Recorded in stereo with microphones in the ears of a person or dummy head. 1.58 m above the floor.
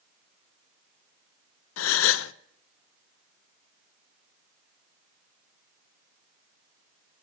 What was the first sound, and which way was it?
A gasp, 80° left.